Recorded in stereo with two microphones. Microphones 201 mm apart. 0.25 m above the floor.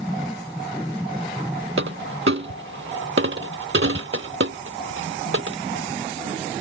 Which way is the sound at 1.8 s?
80° right.